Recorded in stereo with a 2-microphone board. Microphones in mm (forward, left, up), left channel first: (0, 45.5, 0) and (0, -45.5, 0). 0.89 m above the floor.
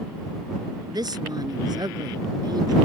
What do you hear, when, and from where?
0.9 s a woman speaking: 50° right (ahead or behind)